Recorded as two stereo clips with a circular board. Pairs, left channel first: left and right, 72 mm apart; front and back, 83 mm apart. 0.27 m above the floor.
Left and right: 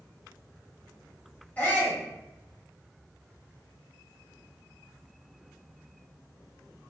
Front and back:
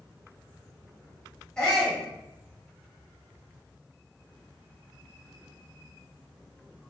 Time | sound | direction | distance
1.6 | a shout | 65° left | 1.2 m